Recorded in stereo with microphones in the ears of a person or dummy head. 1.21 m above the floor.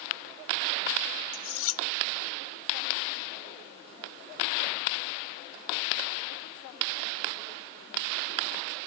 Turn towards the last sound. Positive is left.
turn(degrees=75)  # may be behind; listen again after turning